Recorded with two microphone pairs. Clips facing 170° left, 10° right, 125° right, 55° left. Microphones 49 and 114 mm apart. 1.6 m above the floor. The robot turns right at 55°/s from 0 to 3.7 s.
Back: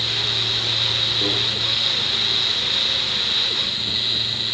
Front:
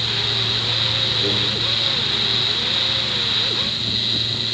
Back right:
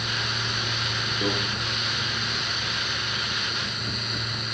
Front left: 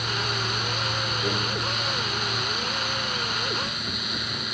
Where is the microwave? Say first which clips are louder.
Front 1 dB, back right 3 dB; 140° right, 2.5 m; by 1.3 s 135° right, 2.5 m.